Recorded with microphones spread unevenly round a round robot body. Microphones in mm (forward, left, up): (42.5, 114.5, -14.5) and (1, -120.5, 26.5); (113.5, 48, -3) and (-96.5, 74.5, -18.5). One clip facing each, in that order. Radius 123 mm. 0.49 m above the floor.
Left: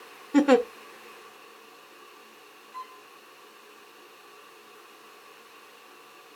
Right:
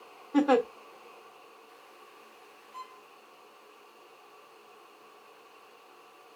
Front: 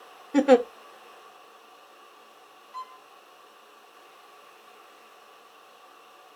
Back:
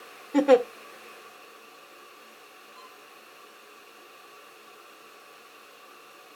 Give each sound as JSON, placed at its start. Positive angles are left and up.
{"t": 0.3, "sound": "a giggle", "azimuth_deg": 85, "distance_m": 0.7}
{"t": 2.7, "sound": "a violin", "azimuth_deg": -20, "distance_m": 2.5}